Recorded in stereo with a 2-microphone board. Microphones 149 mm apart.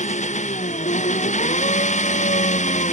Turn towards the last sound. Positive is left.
turn(degrees=55)  # may be behind; listen again after turning